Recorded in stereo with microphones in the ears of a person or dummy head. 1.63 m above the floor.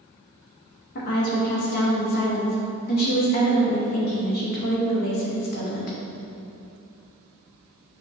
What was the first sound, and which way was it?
A woman speaking, 60° left (ahead or behind).